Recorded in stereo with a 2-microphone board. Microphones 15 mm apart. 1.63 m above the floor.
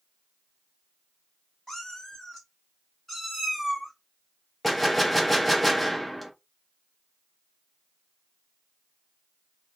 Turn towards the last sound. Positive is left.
turn(degrees=10)  # may be behind; listen again after turning